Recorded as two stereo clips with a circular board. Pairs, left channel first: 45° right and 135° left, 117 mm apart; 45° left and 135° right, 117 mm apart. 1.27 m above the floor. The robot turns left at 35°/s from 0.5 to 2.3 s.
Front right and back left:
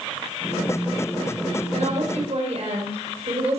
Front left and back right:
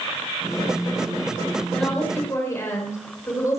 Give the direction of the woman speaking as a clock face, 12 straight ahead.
8 o'clock.